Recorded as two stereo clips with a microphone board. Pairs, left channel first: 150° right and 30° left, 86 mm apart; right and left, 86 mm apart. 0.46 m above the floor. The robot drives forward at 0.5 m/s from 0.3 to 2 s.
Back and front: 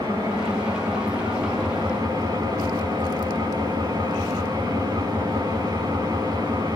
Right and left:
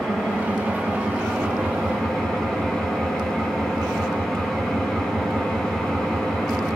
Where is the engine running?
5° right, 5.5 m.